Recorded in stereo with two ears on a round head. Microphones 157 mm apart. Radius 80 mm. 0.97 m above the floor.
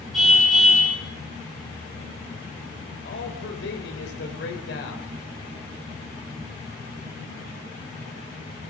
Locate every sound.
0.1 s a car horn: centre (ahead or behind), 8 m
3.0 s a man speaking: 65° left (ahead or behind), 4.5 m